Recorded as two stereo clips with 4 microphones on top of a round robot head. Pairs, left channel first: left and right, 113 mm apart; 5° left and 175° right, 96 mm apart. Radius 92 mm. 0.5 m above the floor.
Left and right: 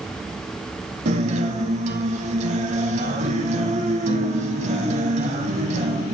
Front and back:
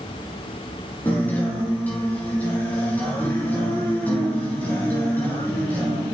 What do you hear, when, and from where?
1.1 s a guitar: 75° right, 0.8 m